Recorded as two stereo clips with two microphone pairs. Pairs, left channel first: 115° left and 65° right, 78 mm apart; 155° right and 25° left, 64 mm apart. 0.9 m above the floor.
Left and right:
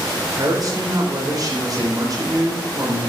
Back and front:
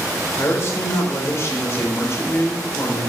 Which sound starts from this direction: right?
A man speaking, at 0.3 s.